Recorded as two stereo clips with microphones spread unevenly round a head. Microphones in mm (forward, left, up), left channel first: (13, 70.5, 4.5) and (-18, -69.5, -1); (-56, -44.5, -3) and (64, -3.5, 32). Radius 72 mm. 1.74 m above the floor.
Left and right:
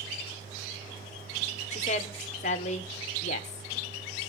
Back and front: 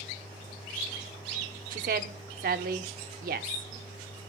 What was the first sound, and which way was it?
A woman speaking, 35° left.